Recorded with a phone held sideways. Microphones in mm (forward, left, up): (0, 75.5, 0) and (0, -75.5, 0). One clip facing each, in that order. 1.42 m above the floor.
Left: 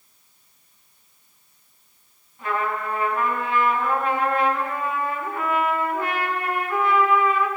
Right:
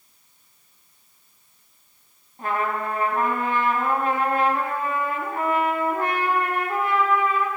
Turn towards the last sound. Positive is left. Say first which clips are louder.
# right 1 dB
turn(degrees=-45)  # may be behind; listen again after turning